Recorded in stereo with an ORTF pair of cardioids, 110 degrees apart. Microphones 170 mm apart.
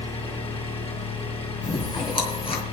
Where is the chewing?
35° left, 4 m.